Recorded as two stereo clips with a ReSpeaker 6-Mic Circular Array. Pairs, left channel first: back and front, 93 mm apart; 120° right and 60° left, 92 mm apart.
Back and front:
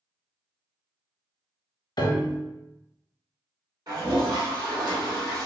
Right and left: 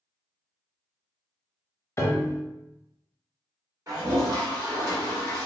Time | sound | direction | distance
2.0 | a piano | 170° right | 0.6 m
3.9 | a toilet flushing | 20° left | 1.9 m